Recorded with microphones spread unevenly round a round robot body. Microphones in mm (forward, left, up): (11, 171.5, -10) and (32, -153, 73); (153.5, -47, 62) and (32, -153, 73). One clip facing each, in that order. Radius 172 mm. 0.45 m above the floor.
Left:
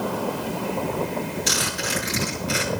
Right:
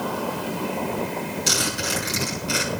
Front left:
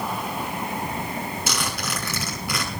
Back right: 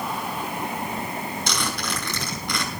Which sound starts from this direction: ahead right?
A zipper, at 1.5 s.